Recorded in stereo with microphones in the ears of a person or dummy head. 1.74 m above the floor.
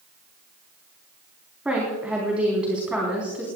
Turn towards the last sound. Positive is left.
turn(degrees=-10)  # may be behind; listen again after turning